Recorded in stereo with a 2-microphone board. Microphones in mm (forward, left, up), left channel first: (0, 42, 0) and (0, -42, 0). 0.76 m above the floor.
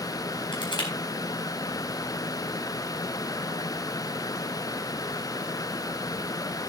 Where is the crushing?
80° left, 4 m.